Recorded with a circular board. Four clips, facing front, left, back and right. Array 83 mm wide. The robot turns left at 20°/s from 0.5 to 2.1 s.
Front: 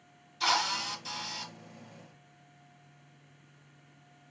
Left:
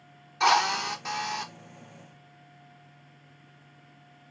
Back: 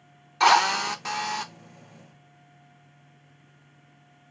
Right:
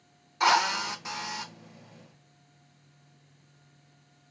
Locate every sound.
0.4 s a drill: 175° right, 0.8 m; by 1.5 s 165° left, 0.8 m